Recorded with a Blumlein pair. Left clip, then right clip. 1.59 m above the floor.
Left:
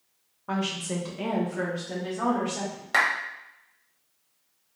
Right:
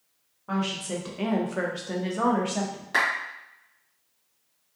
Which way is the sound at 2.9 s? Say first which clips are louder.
Left 1 dB; 20° left.